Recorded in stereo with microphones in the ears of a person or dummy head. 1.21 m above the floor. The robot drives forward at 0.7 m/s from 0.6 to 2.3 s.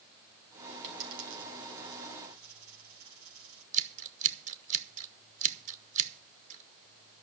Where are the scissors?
40° right (ahead or behind), 1.2 m.